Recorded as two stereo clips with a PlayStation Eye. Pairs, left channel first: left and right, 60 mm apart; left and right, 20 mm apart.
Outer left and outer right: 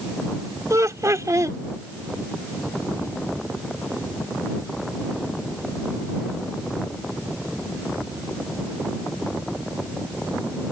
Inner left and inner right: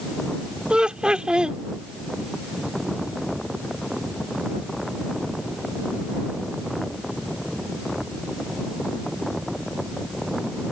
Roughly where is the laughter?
Right.